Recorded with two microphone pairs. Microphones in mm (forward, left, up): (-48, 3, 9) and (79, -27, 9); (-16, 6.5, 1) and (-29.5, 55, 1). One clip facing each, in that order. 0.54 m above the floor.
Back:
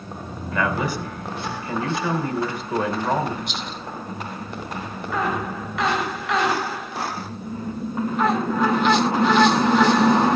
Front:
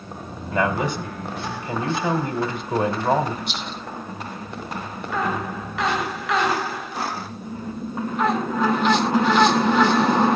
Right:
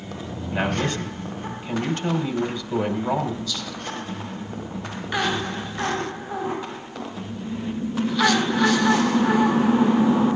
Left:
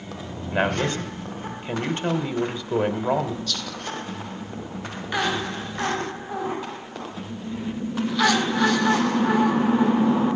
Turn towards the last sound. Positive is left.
turn(degrees=75)